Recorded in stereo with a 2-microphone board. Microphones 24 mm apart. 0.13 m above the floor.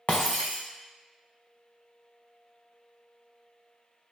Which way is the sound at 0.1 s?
75° left (ahead or behind).